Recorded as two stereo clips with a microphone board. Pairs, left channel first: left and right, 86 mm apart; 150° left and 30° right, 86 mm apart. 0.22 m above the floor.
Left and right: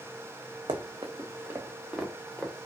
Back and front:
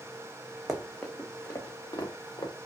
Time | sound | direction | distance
0.7 | running footsteps | 115° right | 0.8 m